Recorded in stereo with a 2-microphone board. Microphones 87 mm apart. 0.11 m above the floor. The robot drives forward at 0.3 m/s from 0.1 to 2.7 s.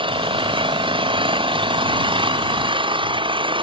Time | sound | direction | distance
0.0 | an engine running | 80° right | ?